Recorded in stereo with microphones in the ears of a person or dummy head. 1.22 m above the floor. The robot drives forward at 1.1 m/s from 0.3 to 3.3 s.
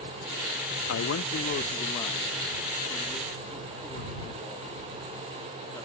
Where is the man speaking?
70° left (ahead or behind); by 5.8 s 15° left (ahead or behind).